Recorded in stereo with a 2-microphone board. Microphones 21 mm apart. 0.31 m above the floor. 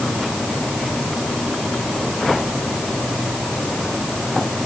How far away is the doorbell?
No doorbell in this recording.